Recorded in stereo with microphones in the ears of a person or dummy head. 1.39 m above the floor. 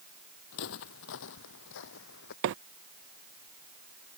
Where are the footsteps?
60° left (ahead or behind); by 2.3 s 55° left (ahead or behind).